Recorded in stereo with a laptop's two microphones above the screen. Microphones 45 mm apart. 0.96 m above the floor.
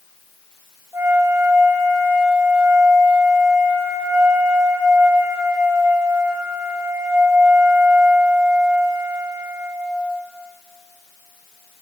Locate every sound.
0.9 s a flute: 75° right (ahead or behind), 3 m